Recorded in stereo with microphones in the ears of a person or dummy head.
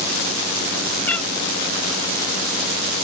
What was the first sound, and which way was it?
A cat meowing, 5° left (ahead or behind).